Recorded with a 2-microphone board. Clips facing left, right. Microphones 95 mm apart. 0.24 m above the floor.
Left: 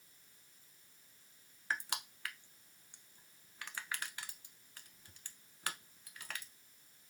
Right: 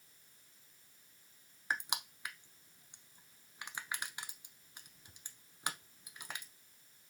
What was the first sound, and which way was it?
Crushing, 20° right (ahead or behind).